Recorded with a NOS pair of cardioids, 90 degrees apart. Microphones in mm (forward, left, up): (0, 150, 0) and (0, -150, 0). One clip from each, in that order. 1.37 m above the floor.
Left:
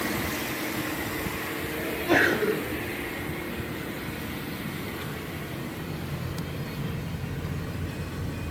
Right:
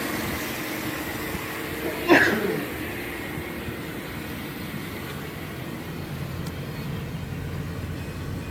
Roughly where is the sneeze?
Ahead right.